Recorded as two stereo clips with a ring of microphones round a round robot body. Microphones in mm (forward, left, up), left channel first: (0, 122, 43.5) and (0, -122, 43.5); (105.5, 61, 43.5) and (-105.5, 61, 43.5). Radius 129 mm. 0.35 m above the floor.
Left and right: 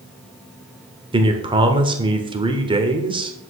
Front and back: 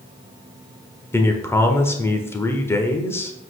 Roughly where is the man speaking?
Ahead right.